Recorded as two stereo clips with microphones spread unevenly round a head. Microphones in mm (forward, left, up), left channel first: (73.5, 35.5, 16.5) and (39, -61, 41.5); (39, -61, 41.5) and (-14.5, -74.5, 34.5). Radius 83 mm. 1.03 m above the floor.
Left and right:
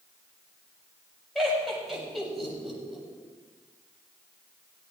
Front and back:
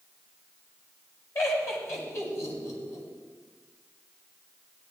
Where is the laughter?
20° right, 7 m.